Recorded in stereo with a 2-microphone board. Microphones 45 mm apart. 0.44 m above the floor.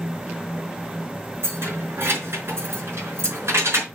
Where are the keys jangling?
55° right (ahead or behind), 4.5 m; by 3.9 s 70° right (ahead or behind), 4 m.